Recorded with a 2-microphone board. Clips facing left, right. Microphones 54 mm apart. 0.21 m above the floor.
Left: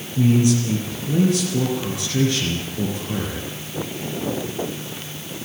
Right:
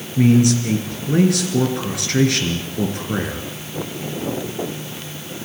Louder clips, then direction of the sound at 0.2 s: Right 3 dB; 65° right (ahead or behind).